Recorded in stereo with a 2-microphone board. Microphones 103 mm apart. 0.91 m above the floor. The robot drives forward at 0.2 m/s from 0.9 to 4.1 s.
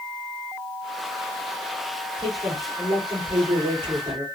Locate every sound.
2.2 s a man speaking: 60° right (ahead or behind), 2.5 m; by 4.2 s 55° right (ahead or behind), 2.5 m